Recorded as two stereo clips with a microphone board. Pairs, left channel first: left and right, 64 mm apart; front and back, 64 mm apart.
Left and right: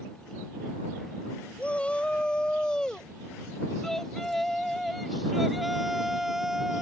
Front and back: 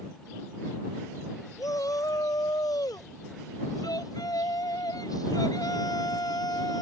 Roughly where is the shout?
Ahead.